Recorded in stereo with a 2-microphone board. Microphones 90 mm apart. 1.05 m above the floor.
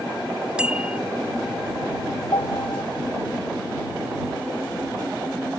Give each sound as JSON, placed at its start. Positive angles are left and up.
{"t": 0.6, "sound": "a bicycle bell", "side_deg": -15}
{"t": 2.3, "sound": "a piano", "side_deg": 70}